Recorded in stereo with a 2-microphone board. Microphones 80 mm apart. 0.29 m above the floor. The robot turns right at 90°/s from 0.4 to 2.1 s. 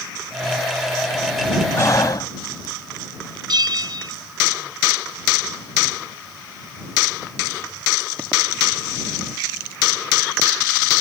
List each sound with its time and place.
1.8 s breathing: 35° left (ahead or behind); by 2.8 s 50° left (ahead or behind)
3.5 s a bell: 65° right (ahead or behind)